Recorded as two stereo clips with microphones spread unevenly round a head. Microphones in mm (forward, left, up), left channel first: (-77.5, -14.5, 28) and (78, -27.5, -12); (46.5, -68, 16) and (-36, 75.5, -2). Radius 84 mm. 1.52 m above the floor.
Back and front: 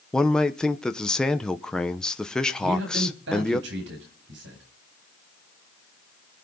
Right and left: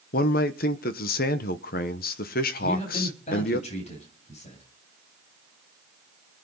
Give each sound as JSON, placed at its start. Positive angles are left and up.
{"t": 0.1, "sound": "a man speaking", "azimuth_deg": -100, "distance_m": 1.0}
{"t": 2.6, "sound": "a man speaking", "azimuth_deg": -10, "distance_m": 9.5}